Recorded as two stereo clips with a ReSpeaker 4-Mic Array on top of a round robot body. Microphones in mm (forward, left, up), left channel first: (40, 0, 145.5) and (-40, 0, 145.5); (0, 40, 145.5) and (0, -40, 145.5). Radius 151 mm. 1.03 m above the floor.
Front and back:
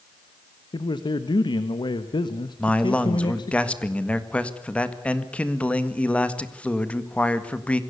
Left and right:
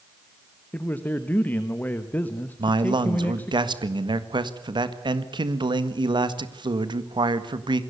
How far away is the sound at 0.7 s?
About 1.3 m.